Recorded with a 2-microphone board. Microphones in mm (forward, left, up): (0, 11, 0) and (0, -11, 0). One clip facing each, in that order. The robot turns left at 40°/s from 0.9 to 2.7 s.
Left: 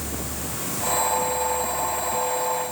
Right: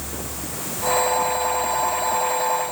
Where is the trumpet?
I don't hear a trumpet.